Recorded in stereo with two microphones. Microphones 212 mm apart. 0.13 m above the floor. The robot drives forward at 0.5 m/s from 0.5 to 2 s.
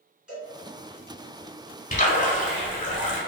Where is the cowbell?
5° right (ahead or behind), 1.6 m.